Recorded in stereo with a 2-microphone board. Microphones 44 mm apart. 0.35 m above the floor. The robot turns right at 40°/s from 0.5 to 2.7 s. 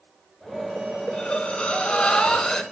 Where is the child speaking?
No child speaking in this recording.